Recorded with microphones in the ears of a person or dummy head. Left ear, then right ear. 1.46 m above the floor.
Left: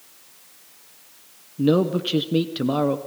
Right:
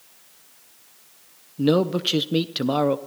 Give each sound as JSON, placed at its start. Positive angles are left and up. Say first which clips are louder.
{"t": 1.6, "sound": "a man speaking", "louder": "even", "side_deg": -25, "distance_m": 0.7}